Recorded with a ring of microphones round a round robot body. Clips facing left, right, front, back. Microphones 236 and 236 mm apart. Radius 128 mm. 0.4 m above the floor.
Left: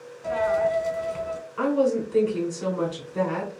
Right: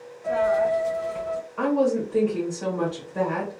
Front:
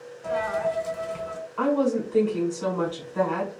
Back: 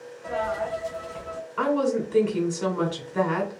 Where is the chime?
No chime in this recording.